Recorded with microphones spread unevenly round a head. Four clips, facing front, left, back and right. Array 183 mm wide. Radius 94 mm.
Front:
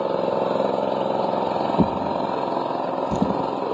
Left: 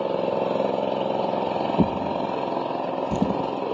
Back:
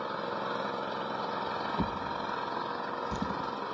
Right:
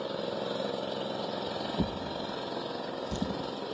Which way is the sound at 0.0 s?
35° left.